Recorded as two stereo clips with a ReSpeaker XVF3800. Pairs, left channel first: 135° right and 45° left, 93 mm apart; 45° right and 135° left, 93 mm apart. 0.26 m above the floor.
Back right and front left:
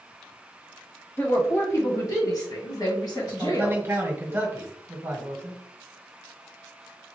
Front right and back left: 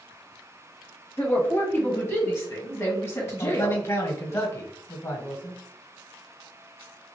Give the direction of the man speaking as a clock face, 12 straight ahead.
12 o'clock.